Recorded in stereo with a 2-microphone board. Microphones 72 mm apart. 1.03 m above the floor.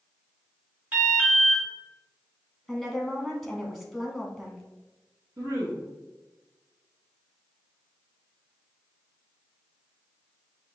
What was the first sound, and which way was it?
An alarm, 20° right (ahead or behind).